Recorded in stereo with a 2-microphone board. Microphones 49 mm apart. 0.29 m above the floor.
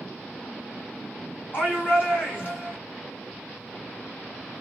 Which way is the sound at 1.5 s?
45° left (ahead or behind).